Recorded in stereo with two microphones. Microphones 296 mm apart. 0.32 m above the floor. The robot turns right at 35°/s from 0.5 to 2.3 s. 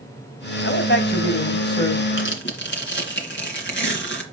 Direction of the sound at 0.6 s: 125° left.